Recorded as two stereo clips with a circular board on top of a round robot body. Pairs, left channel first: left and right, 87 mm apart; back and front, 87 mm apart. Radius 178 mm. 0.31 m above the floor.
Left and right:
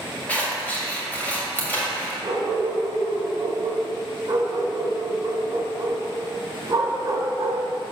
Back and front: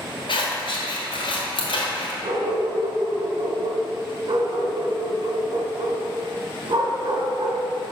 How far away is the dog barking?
About 0.9 m.